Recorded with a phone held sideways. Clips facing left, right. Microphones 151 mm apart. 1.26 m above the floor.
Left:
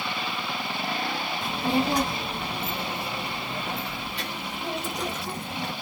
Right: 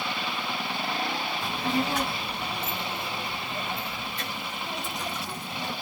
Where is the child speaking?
20° left (ahead or behind), 0.9 m; by 5.7 s 65° left (ahead or behind), 2.5 m.